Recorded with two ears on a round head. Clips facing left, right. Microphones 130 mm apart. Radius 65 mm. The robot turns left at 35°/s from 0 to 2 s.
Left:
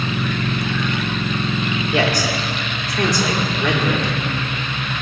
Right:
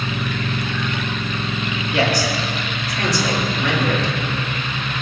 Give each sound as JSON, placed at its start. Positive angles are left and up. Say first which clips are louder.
{"t": 1.9, "sound": "a man speaking", "louder": "right 1 dB", "side_deg": 80, "distance_m": 3.5}